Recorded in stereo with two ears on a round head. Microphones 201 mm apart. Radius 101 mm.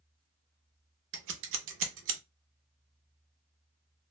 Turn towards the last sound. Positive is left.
turn(degrees=-60)  # may be behind; listen again after turning